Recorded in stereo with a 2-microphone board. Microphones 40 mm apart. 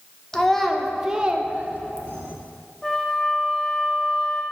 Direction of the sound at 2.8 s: 10° left (ahead or behind).